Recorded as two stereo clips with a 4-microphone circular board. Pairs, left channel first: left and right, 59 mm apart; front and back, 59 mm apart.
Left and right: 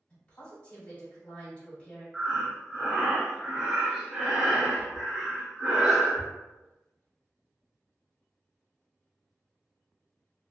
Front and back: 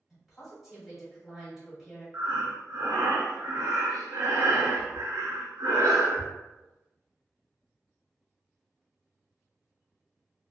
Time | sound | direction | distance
0.1 | a woman speaking | 95° left | 1.5 m
2.1 | breathing | 165° right | 0.7 m